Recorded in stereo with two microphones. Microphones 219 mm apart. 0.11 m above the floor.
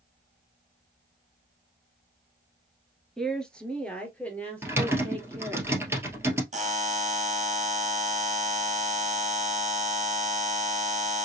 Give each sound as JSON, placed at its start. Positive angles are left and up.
{"t": 3.2, "sound": "a woman speaking", "side_deg": 0, "distance_m": 1.3}
{"t": 4.6, "sound": "typing on a keyboard", "side_deg": -10, "distance_m": 1.8}
{"t": 6.5, "sound": "a buzzer", "side_deg": -35, "distance_m": 0.6}